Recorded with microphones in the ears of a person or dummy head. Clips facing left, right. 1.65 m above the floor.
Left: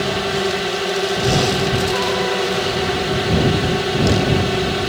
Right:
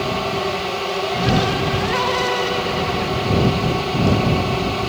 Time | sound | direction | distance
0.0 | a drone | 15° left (ahead or behind) | ?